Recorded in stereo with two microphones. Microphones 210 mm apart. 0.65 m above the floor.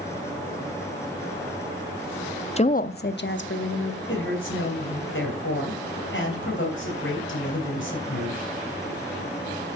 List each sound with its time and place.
2.6 s a woman speaking: 30° left (ahead or behind), 0.5 m; by 4.0 s 70° left (ahead or behind), 1.5 m
4.1 s a woman speaking: 70° left (ahead or behind), 3.5 m